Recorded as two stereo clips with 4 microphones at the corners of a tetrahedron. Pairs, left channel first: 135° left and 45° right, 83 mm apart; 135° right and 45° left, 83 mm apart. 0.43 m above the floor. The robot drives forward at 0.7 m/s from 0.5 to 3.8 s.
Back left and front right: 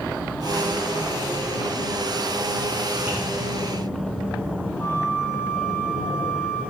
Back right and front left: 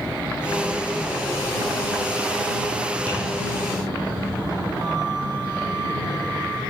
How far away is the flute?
About 7 m.